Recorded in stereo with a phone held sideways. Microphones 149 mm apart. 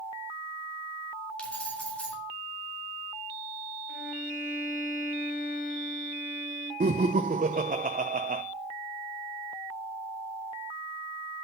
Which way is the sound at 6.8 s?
75° right (ahead or behind).